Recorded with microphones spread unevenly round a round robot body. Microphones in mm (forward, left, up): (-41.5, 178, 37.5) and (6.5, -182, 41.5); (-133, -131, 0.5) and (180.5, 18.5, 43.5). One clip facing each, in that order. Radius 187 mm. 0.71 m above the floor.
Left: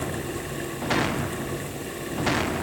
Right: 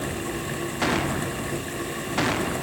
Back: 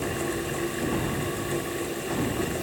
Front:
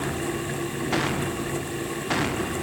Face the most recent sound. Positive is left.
No sound to turn to.